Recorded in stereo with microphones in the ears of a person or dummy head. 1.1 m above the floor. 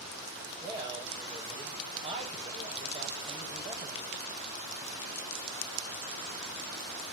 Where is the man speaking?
25° right (ahead or behind), 5 m.